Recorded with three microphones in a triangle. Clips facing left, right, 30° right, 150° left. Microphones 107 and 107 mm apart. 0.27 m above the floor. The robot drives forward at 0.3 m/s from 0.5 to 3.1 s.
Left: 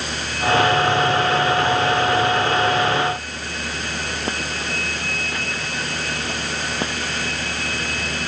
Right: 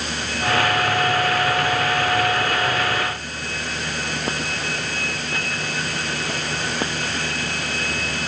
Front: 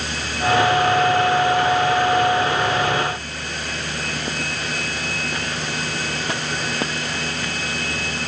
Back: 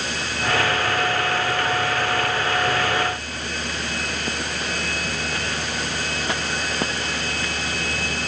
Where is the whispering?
I don't hear whispering.